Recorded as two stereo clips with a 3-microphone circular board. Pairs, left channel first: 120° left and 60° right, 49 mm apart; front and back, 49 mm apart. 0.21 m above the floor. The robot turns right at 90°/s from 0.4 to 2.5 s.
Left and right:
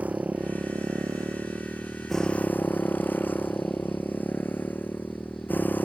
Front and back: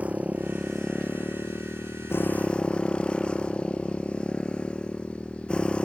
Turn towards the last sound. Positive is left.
turn(degrees=70)